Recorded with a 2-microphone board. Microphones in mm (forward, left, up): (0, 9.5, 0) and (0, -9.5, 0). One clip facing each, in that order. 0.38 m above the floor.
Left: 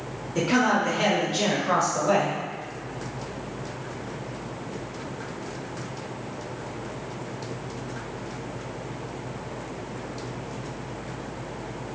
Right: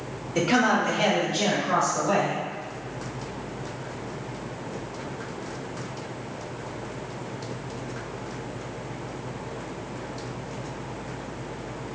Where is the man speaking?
10° right (ahead or behind), 1.1 m; by 2.4 s 40° left (ahead or behind), 1.8 m.